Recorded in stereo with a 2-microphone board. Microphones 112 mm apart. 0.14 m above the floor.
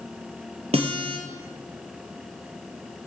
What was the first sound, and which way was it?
A guitar, 65° right (ahead or behind).